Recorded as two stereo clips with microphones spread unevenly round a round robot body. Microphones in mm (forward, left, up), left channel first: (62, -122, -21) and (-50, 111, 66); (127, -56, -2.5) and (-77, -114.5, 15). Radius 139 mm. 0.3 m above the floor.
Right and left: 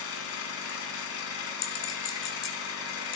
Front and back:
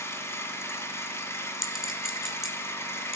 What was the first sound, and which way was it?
An engine running, 60° right.